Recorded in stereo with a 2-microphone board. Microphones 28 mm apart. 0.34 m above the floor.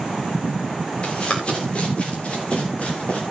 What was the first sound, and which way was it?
Running footsteps, 35° left (ahead or behind).